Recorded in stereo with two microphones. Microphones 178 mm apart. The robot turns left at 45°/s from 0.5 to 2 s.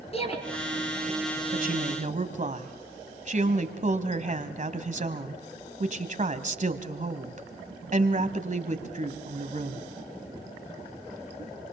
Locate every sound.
0.1 s a shout: 35° left (ahead or behind), 5.5 m
1.5 s a woman speaking: 55° right (ahead or behind), 1.8 m; by 9.9 s 45° right (ahead or behind), 1.8 m